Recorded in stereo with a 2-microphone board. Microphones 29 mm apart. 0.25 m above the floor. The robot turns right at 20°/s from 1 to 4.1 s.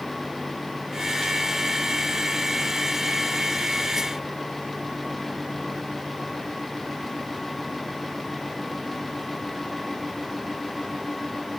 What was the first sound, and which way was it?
Only background noise.